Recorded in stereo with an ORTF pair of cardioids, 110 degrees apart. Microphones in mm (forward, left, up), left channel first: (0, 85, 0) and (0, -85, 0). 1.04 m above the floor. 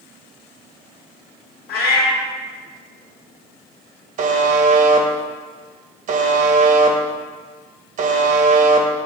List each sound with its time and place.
1.7 s a cat meowing: 70° left, 1.3 m
4.2 s a buzzer: 50° right, 0.6 m